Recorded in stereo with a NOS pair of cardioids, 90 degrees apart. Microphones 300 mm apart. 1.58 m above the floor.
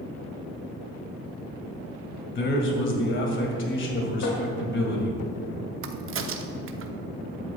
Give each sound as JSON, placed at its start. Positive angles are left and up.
{"t": 2.4, "sound": "a man speaking", "azimuth_deg": 40, "distance_m": 2.0}
{"t": 4.2, "sound": "tapping", "azimuth_deg": 70, "distance_m": 2.0}
{"t": 5.8, "sound": "a crack", "azimuth_deg": -45, "distance_m": 0.7}